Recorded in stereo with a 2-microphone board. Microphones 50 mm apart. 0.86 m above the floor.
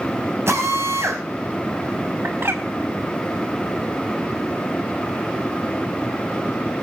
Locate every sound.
0.5 s a drill: 60° right (ahead or behind), 5.5 m
2.2 s a bird: 55° right (ahead or behind), 4.5 m